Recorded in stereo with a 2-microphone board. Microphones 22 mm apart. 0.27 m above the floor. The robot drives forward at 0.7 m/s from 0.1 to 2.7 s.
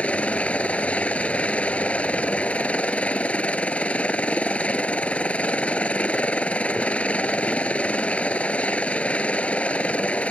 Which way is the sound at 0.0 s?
70° left (ahead or behind).